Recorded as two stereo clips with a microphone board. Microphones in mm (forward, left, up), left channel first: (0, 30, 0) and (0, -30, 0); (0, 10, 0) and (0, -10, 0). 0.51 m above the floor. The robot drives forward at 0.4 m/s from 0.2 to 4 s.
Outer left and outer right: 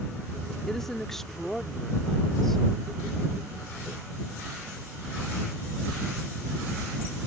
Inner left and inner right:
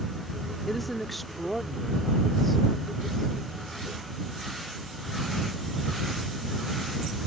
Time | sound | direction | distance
0.7 | a woman speaking | 5° left (ahead or behind) | ?